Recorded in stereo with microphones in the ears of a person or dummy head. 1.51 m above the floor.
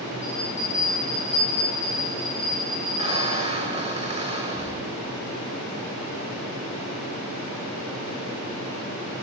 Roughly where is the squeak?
Right.